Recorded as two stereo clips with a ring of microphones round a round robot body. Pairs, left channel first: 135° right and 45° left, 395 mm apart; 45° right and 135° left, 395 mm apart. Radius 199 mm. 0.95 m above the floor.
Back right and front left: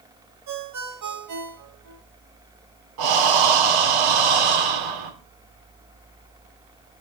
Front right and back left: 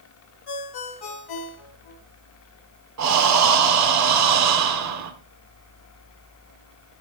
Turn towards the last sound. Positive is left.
turn(degrees=80)